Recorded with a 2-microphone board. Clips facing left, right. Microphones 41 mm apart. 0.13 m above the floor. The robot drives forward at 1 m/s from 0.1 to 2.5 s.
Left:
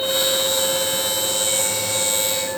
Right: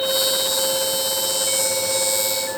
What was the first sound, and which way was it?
Only background noise.